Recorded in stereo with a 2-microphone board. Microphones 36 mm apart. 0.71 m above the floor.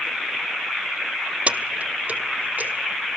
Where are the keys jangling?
40° right (ahead or behind), 0.6 m; by 2.7 s 50° right (ahead or behind), 1.7 m.